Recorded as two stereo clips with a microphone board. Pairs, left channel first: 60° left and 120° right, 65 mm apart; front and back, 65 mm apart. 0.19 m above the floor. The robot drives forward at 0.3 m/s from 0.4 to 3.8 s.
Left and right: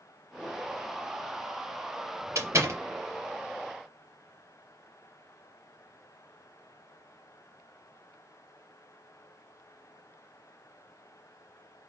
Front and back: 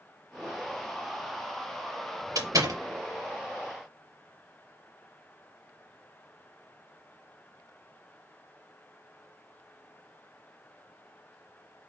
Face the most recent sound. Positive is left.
turn(degrees=-160)